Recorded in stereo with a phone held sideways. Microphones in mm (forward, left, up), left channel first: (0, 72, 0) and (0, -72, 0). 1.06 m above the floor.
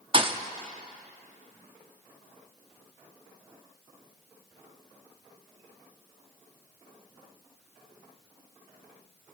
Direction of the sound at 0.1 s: 35° right (ahead or behind).